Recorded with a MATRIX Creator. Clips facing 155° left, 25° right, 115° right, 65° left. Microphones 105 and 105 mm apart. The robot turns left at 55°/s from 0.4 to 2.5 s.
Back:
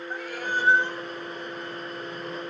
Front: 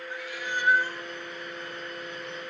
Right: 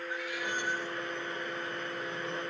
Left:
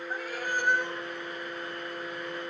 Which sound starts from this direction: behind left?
A cat meowing, at 0.1 s.